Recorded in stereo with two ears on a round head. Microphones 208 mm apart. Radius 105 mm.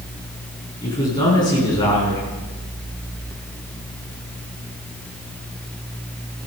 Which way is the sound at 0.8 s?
20° left (ahead or behind).